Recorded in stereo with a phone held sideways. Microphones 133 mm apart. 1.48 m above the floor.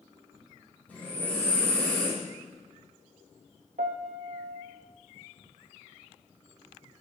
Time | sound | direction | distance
0.9 | breathing | 10° left (ahead or behind) | 2.5 m
3.8 | a piano | 85° right | 0.6 m